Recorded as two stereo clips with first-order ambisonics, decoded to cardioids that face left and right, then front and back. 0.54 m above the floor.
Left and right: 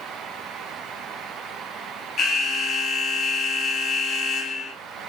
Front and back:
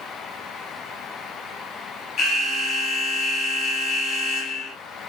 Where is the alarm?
40° left, 0.6 m.